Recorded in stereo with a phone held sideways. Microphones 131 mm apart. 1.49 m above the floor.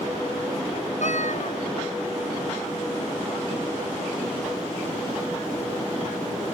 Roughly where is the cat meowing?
Left.